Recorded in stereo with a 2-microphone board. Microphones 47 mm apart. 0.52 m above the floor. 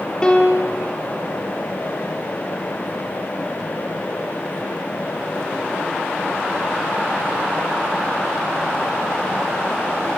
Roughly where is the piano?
Centre.